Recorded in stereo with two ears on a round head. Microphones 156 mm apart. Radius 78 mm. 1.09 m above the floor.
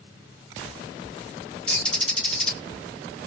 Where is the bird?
5° left (ahead or behind), 0.7 m.